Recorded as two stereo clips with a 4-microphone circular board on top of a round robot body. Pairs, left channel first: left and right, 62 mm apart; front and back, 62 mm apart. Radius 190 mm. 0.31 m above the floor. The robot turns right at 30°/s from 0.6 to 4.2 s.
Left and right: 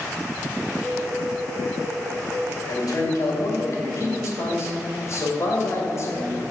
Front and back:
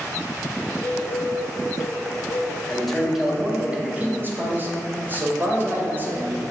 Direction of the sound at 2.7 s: 80° left.